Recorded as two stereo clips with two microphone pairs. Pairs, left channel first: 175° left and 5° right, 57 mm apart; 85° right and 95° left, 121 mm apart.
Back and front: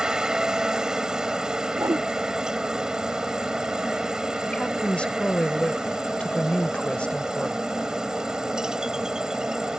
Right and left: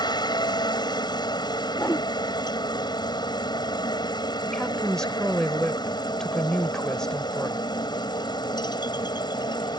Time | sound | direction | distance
0.0 | a helicopter | 75° right | ?
1.8 | a whoosh | 10° right | ?
4.5 | a woman speaking | 160° right | ?